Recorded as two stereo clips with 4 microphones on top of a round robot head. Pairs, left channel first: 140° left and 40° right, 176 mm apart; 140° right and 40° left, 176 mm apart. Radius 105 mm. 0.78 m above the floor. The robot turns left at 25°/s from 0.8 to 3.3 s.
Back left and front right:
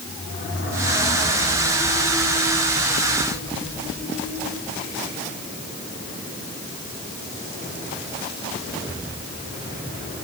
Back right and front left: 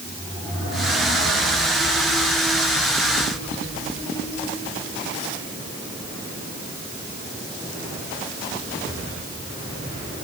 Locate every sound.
Only background noise.